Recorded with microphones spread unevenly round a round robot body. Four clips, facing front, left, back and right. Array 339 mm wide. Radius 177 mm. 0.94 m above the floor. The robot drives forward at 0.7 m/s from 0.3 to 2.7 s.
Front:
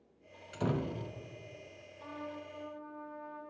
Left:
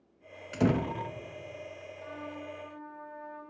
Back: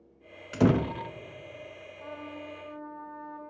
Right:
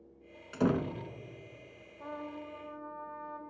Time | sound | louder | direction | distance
0.5 | a door slam | left 2 dB, back 10 dB | 160° left | 0.8 m
2.0 | a trumpet | right 1 dB, back 2 dB | 135° right | 3 m